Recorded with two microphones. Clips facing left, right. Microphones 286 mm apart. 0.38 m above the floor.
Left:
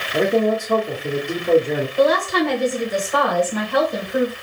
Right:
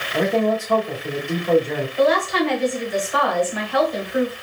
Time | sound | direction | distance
0.1 | a man speaking | 30° left (ahead or behind) | 1.3 m
2.0 | a woman speaking | 50° left (ahead or behind) | 2 m